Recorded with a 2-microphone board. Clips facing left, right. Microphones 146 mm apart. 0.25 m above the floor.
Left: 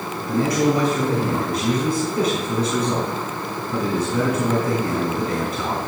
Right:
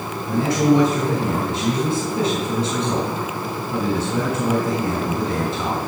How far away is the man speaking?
About 2.5 m.